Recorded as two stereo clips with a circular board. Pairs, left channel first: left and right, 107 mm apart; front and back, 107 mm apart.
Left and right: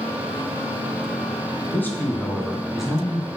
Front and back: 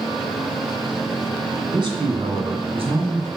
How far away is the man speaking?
About 2.5 m.